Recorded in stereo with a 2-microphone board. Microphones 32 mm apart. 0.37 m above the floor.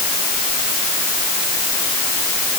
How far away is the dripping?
I don't hear dripping.